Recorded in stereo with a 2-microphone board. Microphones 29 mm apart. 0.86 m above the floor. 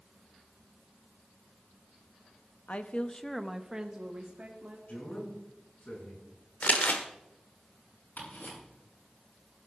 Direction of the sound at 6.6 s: 65° left (ahead or behind).